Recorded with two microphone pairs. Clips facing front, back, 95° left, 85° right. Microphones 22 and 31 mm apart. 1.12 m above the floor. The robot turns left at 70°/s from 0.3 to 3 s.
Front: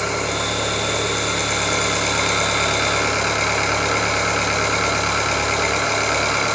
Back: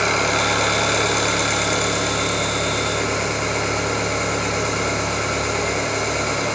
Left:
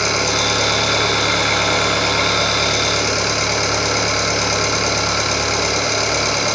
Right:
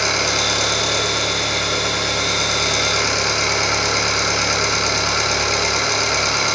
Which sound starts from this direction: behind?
An engine running, at 0.0 s.